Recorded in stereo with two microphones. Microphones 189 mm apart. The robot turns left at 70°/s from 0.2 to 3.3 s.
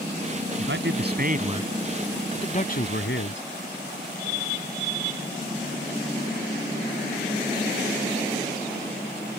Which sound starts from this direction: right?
A man speaking, at 0.6 s.